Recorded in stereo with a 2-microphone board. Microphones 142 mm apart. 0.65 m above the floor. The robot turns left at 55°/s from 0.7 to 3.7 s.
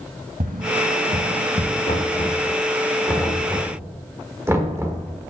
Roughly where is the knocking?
Left.